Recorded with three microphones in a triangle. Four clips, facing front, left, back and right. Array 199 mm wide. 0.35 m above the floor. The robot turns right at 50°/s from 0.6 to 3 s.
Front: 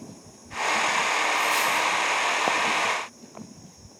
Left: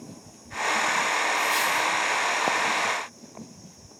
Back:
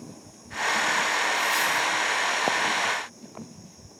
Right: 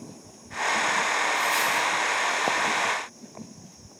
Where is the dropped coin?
45° left, 3 m; by 1.9 s 75° left, 3 m.